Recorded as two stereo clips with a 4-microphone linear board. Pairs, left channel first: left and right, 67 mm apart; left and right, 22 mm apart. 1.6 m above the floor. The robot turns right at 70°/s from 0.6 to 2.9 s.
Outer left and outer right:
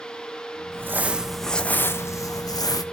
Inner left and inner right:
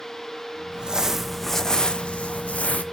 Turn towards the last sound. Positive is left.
turn(degrees=105)